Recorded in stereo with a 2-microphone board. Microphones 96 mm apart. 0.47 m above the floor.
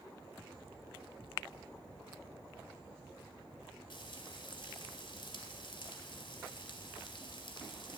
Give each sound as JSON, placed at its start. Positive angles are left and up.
{"t": 3.9, "sound": "frying", "side_deg": 60, "distance_m": 2.0}